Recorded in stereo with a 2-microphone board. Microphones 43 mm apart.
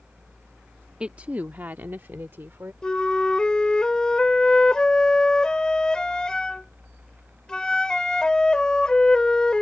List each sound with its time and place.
1.0 s a woman speaking: 25° right (ahead or behind); by 2.7 s 65° right (ahead or behind)
2.8 s a flute: 20° left (ahead or behind)